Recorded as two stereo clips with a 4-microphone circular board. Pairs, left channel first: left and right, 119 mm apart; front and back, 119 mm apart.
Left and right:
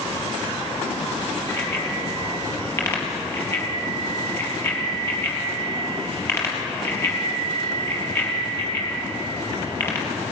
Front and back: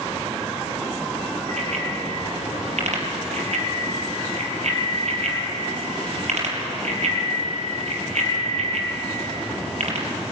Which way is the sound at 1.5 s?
160° left.